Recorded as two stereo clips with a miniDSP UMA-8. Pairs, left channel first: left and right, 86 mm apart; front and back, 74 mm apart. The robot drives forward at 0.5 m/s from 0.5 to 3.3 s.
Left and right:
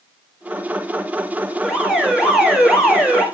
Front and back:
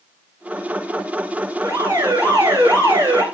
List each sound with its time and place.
1.6 s an alarm: 175° right, 1.1 m